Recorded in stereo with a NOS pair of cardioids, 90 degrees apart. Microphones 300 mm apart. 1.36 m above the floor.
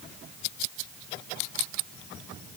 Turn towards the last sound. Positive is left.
No sound to turn to.